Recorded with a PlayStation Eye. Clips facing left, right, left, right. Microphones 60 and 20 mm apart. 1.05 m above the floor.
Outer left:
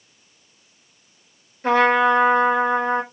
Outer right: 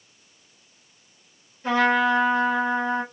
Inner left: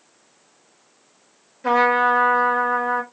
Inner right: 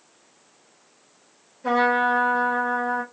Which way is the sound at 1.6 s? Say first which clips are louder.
Outer left 4 dB, inner left 3 dB; 55° left (ahead or behind).